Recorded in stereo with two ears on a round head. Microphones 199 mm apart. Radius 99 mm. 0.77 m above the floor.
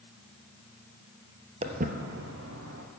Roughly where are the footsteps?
Right.